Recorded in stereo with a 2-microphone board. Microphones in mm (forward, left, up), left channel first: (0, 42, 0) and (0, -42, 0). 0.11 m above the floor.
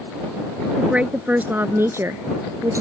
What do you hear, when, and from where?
0.8 s a woman speaking: 10° right (ahead or behind); by 2.8 s 40° right (ahead or behind)